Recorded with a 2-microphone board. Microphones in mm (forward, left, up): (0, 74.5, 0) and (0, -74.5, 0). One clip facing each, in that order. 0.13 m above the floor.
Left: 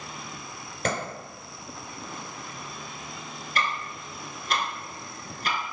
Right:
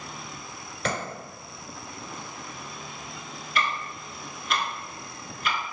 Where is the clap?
45° left (ahead or behind), 1.9 m.